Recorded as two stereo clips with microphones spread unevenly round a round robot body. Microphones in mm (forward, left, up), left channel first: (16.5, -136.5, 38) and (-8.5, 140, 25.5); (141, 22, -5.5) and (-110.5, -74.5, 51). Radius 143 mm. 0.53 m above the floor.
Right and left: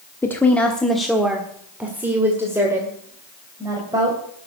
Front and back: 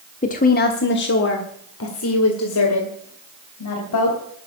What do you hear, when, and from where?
0.2 s a woman speaking: 5° right, 1.1 m; by 4.2 s 20° left, 3 m